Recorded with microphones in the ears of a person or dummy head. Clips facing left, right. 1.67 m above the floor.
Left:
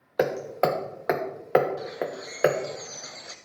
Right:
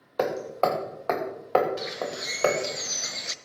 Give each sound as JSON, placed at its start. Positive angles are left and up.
{"t": 0.2, "sound": "hammering", "side_deg": 10, "distance_m": 1.2}
{"t": 1.8, "sound": "a bird", "side_deg": -35, "distance_m": 0.7}